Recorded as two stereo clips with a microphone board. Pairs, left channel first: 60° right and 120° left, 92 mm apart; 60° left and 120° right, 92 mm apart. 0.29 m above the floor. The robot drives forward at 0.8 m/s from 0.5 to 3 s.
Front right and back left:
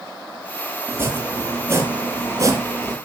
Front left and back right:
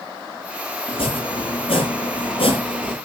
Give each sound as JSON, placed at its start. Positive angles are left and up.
{"t": 0.9, "sound": "chopping", "azimuth_deg": 55, "distance_m": 6.0}